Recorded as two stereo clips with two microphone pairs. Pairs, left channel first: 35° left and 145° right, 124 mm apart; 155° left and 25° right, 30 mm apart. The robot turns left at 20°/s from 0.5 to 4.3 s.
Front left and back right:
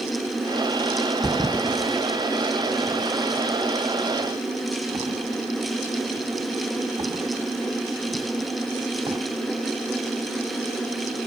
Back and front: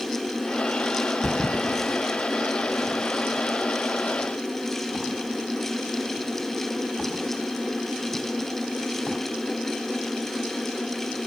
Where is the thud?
35° right, 1.4 m; by 9.2 s 95° right, 1.4 m.